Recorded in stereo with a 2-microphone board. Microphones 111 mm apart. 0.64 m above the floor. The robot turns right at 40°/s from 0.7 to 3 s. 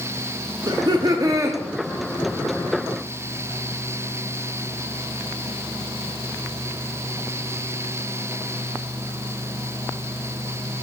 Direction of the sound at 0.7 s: 70° right.